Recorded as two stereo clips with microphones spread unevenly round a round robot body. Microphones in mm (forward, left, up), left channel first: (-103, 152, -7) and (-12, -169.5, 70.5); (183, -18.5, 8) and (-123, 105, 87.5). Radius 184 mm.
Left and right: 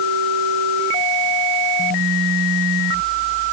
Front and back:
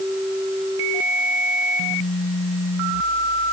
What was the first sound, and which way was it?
Only background noise.